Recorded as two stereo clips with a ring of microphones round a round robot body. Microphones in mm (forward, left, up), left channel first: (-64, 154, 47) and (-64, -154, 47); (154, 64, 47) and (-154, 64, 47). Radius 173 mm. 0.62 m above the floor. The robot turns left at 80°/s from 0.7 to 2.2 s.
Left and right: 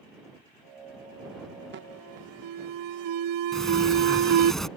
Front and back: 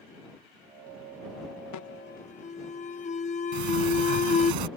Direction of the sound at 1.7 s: 30° right.